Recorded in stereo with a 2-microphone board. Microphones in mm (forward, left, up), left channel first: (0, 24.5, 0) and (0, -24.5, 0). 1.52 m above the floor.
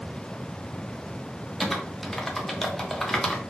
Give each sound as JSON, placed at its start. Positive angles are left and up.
{"t": 1.6, "sound": "typing on a keyboard", "side_deg": 5, "distance_m": 0.6}